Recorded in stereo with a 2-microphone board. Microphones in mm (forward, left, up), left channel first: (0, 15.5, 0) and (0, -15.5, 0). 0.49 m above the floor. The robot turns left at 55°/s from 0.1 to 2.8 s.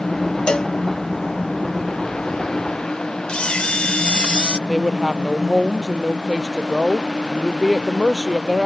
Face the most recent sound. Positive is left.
turn(degrees=-5)  # may be behind; listen again after turning